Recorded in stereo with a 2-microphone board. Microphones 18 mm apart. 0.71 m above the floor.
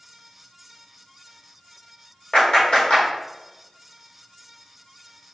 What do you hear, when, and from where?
2.3 s a clap: 55° left (ahead or behind), 2 m